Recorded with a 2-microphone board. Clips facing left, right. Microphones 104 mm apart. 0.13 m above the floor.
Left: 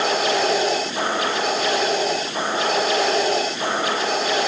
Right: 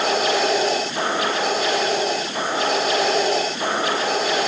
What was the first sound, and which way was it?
Only background noise.